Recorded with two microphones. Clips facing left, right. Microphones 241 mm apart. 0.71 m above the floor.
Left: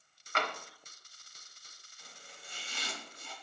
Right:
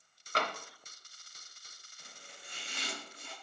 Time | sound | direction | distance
0.3 | tapping | 35° right (ahead or behind) | 0.7 m
2.0 | chopping | 60° right (ahead or behind) | 1.8 m